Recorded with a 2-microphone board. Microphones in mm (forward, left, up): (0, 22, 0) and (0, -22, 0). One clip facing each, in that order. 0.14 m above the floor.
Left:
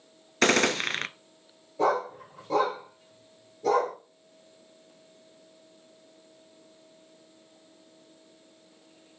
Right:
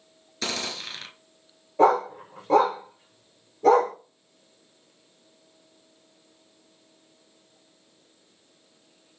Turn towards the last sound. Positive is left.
turn(degrees=-45)  # may be behind; listen again after turning